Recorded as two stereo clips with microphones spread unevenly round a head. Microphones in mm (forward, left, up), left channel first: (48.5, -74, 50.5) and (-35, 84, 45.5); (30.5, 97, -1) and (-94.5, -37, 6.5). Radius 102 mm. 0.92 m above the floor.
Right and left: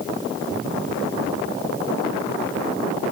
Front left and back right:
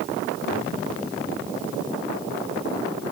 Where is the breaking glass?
No breaking glass in this recording.